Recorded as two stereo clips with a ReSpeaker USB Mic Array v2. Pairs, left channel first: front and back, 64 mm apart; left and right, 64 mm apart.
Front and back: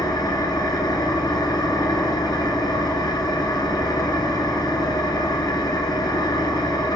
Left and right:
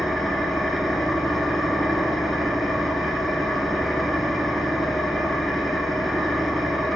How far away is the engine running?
About 0.8 m.